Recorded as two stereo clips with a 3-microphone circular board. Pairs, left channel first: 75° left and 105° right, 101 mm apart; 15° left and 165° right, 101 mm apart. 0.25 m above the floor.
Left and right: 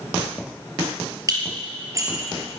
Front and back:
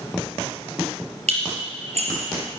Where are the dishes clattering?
165° right, 4 m.